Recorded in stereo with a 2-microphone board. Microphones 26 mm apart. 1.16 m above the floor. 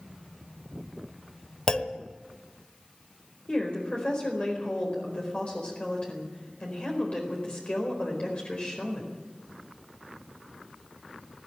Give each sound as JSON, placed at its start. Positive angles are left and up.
{"t": 1.7, "sound": "a clunk", "side_deg": 35, "distance_m": 1.0}
{"t": 3.5, "sound": "a woman speaking", "side_deg": 45, "distance_m": 4.5}